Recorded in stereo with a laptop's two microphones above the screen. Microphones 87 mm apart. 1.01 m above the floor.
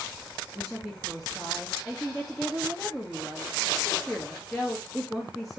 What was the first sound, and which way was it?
A woman speaking, centre (ahead or behind).